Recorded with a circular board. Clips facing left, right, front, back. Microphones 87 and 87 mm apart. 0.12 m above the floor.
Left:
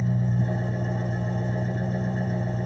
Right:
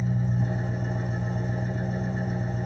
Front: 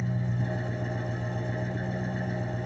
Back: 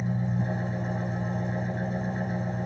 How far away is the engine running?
About 2.5 m.